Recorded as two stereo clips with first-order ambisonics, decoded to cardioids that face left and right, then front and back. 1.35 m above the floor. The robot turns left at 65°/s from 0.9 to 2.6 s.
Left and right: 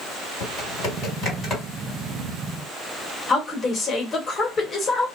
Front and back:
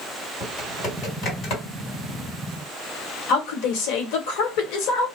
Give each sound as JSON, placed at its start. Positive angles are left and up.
{"t": 0.4, "sound": "typing on a keyboard", "azimuth_deg": 60, "distance_m": 1.7}
{"t": 3.3, "sound": "a woman speaking", "azimuth_deg": 20, "distance_m": 1.0}